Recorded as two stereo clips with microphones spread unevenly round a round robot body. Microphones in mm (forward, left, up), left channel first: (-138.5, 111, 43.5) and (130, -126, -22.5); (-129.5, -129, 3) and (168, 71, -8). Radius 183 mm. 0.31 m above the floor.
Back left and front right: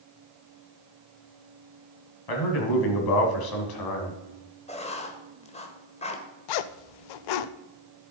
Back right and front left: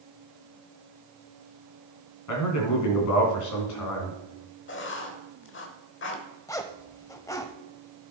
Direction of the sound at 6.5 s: 135° left.